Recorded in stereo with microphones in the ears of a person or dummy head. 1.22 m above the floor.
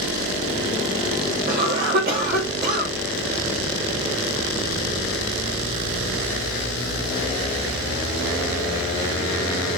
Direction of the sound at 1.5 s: 55° right (ahead or behind).